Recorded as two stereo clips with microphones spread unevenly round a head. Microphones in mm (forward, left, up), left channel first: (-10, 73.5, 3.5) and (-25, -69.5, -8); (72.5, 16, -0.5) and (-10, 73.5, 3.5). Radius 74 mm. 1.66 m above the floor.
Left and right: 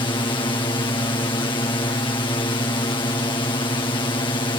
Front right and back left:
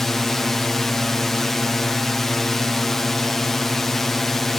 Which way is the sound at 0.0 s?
50° left.